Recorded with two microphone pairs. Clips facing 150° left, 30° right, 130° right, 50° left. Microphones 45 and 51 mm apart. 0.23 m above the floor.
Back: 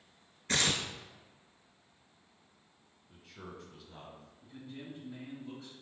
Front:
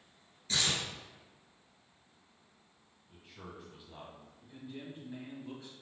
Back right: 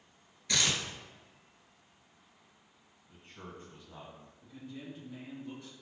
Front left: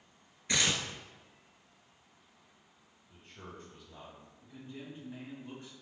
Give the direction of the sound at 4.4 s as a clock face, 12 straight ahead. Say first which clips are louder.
Front 1 dB, back right 1 dB; 11 o'clock.